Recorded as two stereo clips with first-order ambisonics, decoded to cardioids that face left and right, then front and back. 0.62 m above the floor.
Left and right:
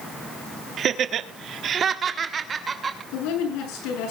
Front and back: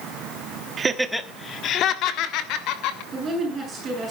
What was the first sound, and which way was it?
Laughter, 130° right.